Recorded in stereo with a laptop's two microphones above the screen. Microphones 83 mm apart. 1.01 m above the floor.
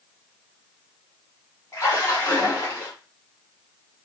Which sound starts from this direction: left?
A splash, at 1.7 s.